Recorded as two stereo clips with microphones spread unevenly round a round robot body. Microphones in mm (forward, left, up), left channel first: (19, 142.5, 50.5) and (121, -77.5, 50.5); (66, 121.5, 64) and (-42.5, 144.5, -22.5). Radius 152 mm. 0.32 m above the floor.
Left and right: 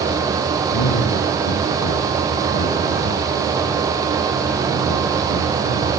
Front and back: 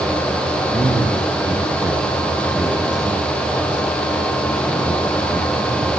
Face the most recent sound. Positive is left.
turn(degrees=95)